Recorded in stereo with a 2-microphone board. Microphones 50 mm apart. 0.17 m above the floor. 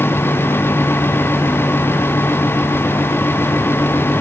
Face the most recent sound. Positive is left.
No sound to turn to.